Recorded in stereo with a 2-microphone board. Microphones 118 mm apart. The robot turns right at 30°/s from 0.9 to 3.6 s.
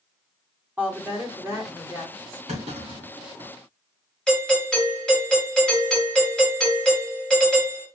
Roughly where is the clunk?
Right.